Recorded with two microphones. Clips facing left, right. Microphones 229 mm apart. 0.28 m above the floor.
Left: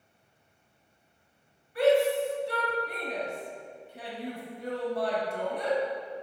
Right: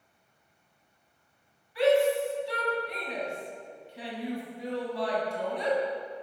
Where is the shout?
55° left (ahead or behind), 1.8 m.